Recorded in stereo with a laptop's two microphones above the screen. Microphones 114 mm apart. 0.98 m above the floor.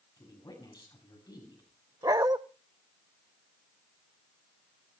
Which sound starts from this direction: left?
A woman speaking, at 0.2 s.